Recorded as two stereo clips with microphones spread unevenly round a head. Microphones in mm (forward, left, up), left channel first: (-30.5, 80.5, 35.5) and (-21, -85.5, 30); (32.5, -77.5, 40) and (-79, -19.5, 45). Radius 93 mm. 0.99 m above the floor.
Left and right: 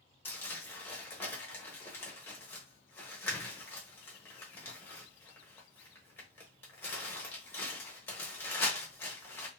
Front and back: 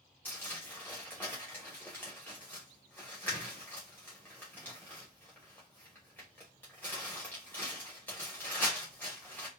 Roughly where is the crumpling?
Ahead left.